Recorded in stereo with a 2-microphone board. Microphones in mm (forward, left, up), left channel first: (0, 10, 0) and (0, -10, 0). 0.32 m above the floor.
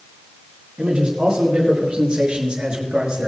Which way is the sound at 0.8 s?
55° right (ahead or behind).